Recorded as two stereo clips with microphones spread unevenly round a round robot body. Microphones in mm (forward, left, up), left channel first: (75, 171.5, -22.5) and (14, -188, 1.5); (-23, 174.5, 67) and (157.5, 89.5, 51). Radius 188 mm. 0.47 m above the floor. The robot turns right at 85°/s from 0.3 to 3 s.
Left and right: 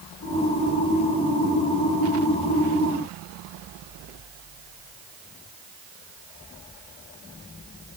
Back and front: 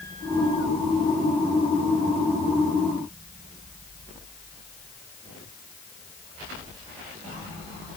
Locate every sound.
Only background noise.